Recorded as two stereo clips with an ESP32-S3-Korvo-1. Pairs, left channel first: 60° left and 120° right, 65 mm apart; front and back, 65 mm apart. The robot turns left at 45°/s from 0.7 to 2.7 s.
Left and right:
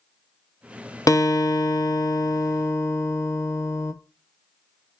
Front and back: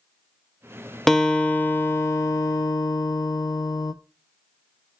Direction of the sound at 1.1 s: 85° left.